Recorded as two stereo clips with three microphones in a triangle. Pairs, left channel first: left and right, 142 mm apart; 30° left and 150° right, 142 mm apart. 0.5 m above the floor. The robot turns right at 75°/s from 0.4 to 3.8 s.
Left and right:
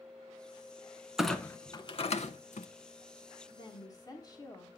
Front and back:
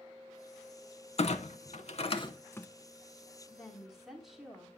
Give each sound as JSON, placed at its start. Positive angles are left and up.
{"t": 1.2, "sound": "a clunk", "azimuth_deg": -5, "distance_m": 0.7}
{"t": 3.5, "sound": "a woman speaking", "azimuth_deg": 100, "distance_m": 1.4}